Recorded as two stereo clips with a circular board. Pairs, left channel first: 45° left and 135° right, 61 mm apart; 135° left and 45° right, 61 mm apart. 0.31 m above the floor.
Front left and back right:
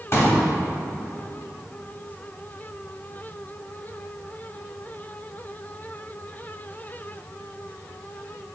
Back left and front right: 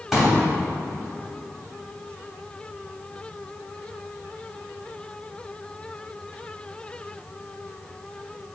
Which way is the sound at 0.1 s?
35° left.